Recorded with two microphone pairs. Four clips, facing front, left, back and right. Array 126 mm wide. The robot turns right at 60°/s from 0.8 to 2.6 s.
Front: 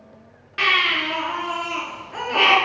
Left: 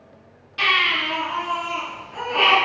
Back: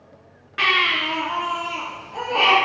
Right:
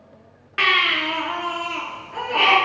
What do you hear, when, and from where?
0.6 s a baby crying: 95° right, 2 m; by 2.5 s 10° left, 2 m